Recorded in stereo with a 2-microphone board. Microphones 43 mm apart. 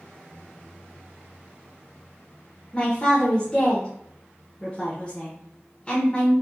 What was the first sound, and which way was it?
A man speaking, 25° left (ahead or behind).